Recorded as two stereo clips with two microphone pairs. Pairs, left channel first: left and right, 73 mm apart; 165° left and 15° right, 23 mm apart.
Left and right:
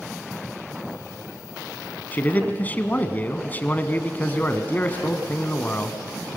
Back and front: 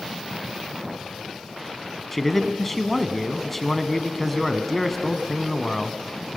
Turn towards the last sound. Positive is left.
turn(degrees=90)